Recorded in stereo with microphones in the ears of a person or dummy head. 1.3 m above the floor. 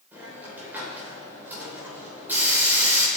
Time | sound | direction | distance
0.1 | a hiss | 15° right (ahead or behind) | 3 m